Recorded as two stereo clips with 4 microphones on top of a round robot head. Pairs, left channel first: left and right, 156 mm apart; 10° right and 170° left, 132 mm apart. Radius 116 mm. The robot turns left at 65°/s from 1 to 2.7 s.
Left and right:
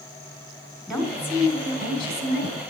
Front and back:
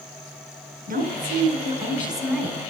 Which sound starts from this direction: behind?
A woman speaking, at 0.9 s.